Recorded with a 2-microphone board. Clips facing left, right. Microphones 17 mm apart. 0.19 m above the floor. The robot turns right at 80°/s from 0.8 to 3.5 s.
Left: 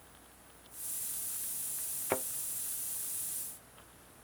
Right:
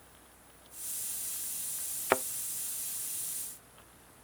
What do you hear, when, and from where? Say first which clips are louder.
2.1 s a thud: right 6 dB; 35° right (ahead or behind); by 2.2 s 25° right (ahead or behind)